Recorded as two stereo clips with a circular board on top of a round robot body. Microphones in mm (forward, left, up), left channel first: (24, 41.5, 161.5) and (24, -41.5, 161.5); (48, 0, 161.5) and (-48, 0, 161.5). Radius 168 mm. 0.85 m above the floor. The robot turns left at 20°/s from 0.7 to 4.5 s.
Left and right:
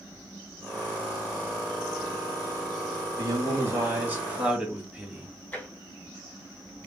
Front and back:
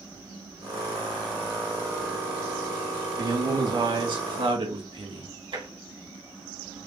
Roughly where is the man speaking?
Behind right.